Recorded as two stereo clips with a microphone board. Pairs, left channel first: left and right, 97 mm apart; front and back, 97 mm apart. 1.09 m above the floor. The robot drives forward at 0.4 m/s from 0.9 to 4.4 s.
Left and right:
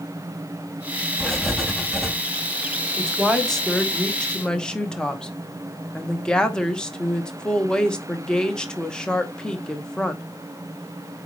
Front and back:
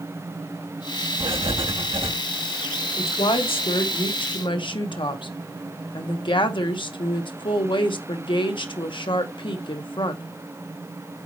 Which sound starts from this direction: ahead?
A woman speaking, at 3.0 s.